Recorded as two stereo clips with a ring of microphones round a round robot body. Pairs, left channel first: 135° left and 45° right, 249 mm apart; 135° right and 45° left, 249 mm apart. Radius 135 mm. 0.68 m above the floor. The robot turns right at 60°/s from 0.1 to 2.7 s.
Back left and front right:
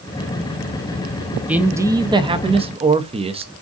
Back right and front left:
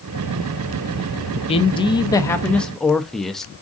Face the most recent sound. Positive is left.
turn(degrees=-50)